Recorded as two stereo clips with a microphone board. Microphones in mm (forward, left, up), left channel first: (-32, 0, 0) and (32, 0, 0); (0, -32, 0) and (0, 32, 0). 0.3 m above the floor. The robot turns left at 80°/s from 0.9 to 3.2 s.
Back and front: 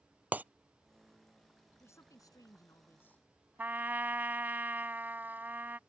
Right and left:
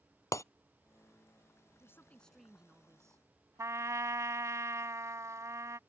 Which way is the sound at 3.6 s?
55° left.